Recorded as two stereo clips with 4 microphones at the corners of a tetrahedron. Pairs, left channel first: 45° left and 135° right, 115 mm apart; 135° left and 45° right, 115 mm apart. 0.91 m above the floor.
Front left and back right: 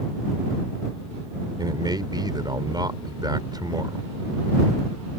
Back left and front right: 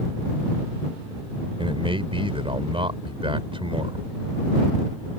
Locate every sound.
1.6 s a man speaking: 80° right